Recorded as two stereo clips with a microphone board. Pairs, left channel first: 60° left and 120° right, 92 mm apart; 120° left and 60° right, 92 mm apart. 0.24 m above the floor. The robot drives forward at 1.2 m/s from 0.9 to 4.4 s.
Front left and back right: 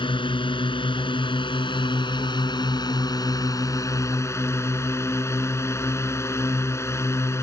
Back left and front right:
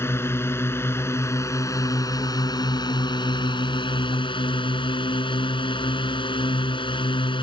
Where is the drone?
60° left; by 7.4 s 115° left.